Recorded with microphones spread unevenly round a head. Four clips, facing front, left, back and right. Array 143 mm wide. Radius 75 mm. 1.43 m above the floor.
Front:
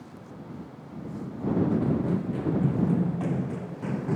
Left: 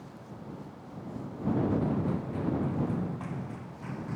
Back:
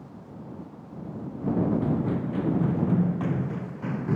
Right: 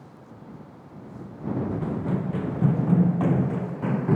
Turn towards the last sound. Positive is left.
turn(degrees=-80)